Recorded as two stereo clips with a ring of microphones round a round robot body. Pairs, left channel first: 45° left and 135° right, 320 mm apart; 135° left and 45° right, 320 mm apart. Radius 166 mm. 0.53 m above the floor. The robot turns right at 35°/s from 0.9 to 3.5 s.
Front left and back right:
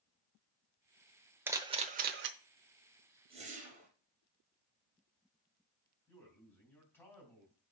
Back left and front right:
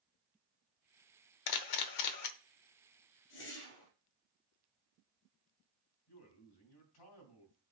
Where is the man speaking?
130° left, 3.5 m.